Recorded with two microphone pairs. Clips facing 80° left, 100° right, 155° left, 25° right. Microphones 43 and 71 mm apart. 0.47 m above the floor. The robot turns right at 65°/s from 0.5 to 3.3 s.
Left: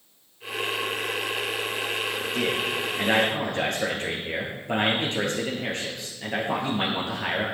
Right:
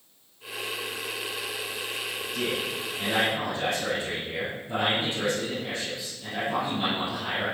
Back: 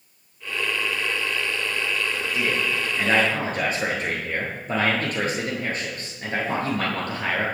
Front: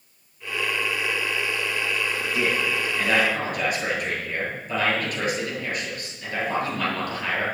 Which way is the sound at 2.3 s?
35° left.